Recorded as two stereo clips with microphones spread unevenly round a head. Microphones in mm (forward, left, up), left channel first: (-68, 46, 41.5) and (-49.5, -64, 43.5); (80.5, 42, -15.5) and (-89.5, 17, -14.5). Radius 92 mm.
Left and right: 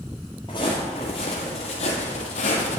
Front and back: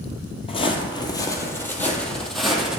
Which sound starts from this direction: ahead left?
Footsteps, at 0.5 s.